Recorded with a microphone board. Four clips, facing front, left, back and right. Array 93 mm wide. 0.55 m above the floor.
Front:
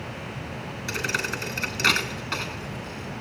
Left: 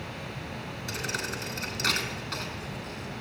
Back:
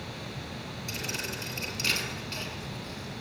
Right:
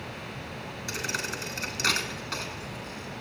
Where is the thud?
5° right, 2.5 m.